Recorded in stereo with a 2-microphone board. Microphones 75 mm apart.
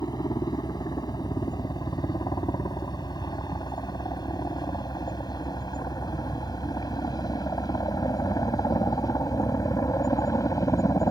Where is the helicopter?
70° left (ahead or behind); by 11.1 s 50° left (ahead or behind).